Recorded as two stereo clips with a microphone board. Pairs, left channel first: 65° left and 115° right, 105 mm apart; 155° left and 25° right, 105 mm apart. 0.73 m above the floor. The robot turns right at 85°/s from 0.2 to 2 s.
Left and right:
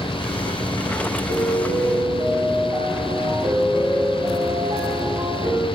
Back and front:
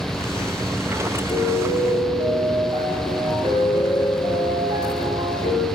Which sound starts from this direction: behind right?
A piano, at 1.3 s.